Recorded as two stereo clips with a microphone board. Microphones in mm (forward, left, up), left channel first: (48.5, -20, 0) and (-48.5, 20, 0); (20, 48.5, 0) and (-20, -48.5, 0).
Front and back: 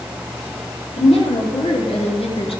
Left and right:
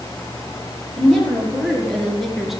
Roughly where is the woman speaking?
Ahead.